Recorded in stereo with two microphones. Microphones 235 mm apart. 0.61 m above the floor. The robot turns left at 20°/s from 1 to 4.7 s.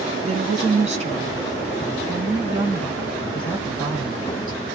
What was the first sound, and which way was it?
A woman speaking, 135° right.